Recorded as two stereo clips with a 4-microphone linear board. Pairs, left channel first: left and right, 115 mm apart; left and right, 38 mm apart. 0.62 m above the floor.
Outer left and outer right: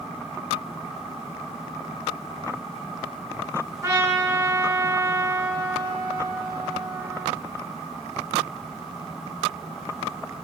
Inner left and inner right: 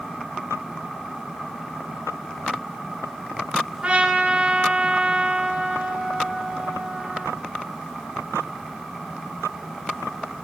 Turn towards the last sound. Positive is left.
turn(degrees=-25)  # may be behind; listen again after turning